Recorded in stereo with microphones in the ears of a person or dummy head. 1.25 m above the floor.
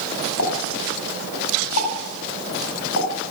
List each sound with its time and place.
0.4 s a pop: 80° left, 6 m